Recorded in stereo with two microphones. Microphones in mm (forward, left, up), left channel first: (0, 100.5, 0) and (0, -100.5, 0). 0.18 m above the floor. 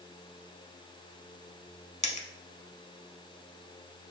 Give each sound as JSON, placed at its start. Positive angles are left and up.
{"t": 2.0, "sound": "a dropped coin", "side_deg": 35, "distance_m": 0.7}